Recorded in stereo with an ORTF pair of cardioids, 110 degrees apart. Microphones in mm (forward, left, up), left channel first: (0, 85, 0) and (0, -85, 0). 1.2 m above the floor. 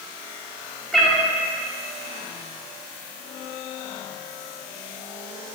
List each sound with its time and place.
0.9 s a cat meowing: straight ahead, 1.3 m